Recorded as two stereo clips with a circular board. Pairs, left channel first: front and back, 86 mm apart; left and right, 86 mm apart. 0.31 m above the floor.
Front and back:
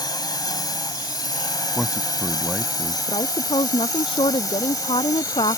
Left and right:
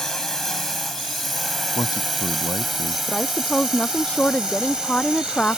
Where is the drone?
5° left; by 5.6 s 15° right.